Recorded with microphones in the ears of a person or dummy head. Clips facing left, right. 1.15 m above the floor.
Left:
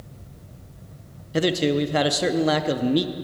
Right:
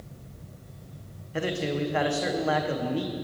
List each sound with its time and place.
1.3 s a man speaking: 45° left (ahead or behind), 0.5 m